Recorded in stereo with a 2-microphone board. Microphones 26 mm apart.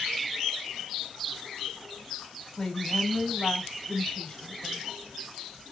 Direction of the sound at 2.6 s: 10° left (ahead or behind).